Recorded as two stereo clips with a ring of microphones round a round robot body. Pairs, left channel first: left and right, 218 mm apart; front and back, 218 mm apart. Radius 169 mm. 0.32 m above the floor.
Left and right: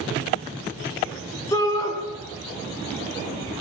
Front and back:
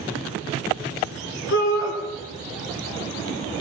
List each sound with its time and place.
1.5 s a shout: 15° left, 5.5 m